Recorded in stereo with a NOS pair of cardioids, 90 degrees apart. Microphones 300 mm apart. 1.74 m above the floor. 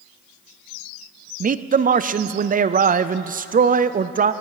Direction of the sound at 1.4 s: 25° right.